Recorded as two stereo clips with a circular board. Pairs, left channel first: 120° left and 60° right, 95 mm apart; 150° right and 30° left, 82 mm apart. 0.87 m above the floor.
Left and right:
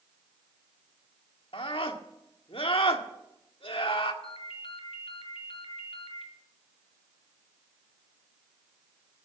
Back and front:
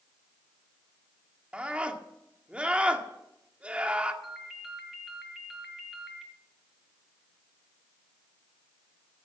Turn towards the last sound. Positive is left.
turn(degrees=120)